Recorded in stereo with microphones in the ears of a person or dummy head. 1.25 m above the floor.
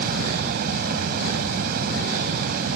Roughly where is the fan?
Right.